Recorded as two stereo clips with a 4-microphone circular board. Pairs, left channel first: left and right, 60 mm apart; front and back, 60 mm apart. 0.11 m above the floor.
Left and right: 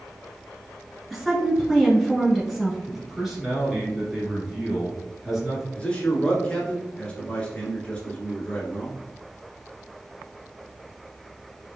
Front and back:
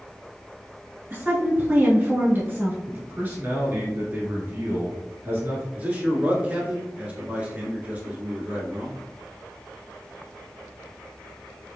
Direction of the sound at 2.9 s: 170° right.